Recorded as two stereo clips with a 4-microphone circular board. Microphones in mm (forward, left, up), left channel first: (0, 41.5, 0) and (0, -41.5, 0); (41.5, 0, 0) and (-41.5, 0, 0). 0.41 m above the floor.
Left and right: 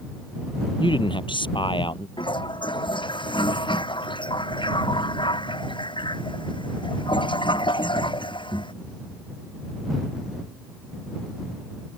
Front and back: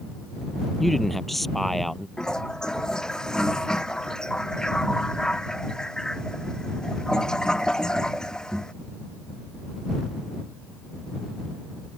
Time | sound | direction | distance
0.8 | a man speaking | 90° left | ?
2.2 | a toilet flushing | 80° left | ?